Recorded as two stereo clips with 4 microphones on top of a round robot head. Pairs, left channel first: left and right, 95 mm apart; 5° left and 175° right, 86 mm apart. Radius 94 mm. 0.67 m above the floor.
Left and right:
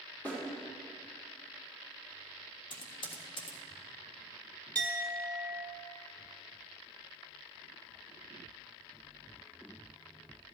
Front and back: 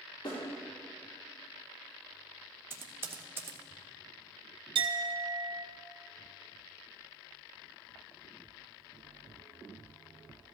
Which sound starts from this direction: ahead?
A snare drum, at 0.2 s.